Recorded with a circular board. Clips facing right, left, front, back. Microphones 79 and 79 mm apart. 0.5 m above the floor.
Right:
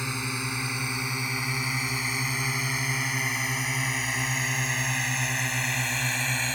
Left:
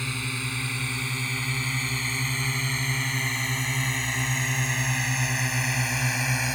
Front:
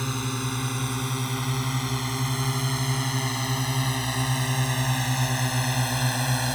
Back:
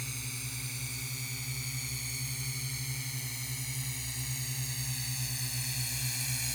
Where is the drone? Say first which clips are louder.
Right 1 dB, front 15 dB; 20° right; by 6.5 s 10° left.